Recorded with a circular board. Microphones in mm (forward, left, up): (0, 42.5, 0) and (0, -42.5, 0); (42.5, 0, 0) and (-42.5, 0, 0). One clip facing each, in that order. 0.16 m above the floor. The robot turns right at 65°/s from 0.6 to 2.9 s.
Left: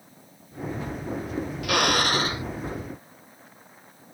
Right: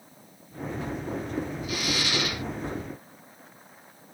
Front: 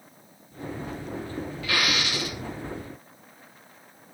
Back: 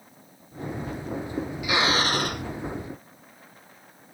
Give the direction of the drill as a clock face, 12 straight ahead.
9 o'clock.